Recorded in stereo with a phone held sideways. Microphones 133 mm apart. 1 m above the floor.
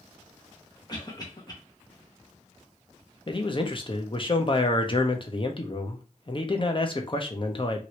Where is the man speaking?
40° left (ahead or behind), 0.6 m.